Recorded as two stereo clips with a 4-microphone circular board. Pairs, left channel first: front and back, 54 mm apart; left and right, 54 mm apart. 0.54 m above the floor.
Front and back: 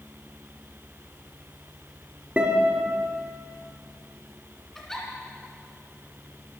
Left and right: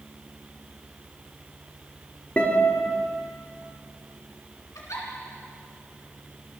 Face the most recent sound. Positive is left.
turn(degrees=85)